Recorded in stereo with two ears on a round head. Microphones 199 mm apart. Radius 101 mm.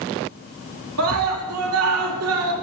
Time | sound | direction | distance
1.0 | a scream | 75° right (ahead or behind) | 3 m